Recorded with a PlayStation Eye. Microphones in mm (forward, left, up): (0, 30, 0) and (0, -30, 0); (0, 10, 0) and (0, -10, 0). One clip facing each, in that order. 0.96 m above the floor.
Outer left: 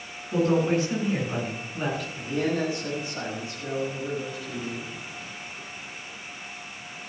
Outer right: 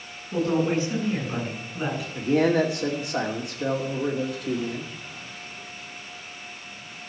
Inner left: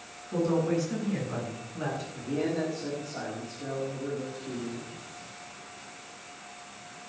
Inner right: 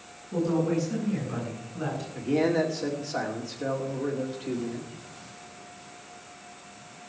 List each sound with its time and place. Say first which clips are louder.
0.3 s a woman speaking: outer left 1 dB, inner right 1 dB; 10° left (ahead or behind), 8.5 m; by 2.0 s 5° right (ahead or behind), 9.5 m
2.1 s a man speaking: outer right 8 dB, inner right 7 dB; 75° right (ahead or behind), 2.5 m